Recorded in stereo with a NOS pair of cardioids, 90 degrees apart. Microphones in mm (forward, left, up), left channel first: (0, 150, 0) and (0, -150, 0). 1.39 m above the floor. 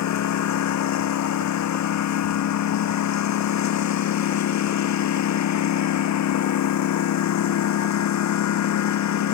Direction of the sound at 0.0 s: 65° left.